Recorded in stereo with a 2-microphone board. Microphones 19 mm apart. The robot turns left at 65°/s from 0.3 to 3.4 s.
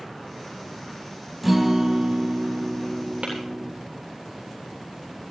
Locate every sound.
1.4 s a guitar: 5° right, 2.5 m; by 3.7 s 135° right, 2.5 m
3.2 s tapping: 75° right (ahead or behind), 8 m; by 3.4 s 70° right (ahead or behind), 8 m